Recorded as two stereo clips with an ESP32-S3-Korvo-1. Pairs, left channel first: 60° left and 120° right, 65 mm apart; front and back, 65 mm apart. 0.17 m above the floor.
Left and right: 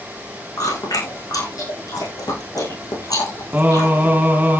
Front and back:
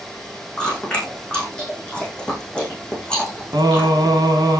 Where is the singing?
175° left, 4 m.